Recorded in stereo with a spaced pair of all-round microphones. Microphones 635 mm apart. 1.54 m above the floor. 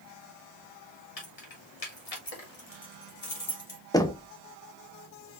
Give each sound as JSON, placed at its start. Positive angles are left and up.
{"t": 1.2, "sound": "keys jangling", "side_deg": 65, "distance_m": 1.5}
{"t": 3.9, "sound": "knocking", "side_deg": 5, "distance_m": 0.5}